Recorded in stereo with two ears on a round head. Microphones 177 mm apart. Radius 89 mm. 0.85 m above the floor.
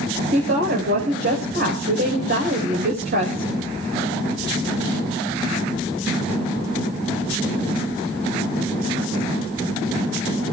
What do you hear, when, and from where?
0.3 s a woman speaking: 55° right (ahead or behind), 4.5 m